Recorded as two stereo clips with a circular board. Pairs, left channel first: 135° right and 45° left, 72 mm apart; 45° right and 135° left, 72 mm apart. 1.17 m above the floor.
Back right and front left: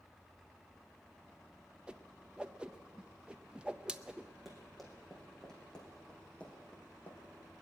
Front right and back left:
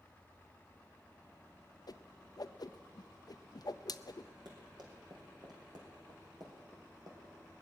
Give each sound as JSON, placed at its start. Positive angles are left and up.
{"t": 1.9, "sound": "a whoosh", "azimuth_deg": -30, "distance_m": 0.5}
{"t": 4.5, "sound": "running footsteps", "azimuth_deg": 135, "distance_m": 3.5}